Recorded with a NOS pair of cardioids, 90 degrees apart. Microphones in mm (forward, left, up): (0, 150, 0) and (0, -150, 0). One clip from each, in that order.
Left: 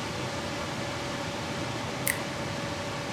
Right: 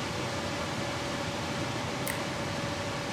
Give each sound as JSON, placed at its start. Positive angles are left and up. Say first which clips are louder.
{"t": 0.0, "sound": "a machine running", "louder": "even", "azimuth_deg": 0, "distance_m": 1.0}
{"t": 2.1, "sound": "a finger snap", "louder": "left 3 dB", "azimuth_deg": 40, "distance_m": 0.8}